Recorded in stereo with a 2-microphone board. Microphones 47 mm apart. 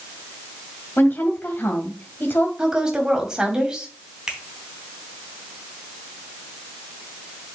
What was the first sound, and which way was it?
A woman speaking, 45° left (ahead or behind).